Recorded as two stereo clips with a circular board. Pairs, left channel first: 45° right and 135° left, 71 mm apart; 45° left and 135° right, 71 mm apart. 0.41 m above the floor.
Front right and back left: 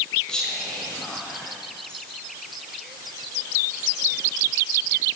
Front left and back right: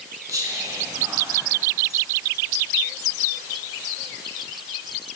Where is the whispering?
120° right, 2.0 m.